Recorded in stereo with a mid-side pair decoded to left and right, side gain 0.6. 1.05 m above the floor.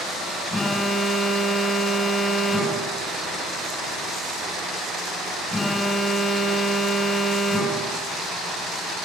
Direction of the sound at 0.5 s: 20° left.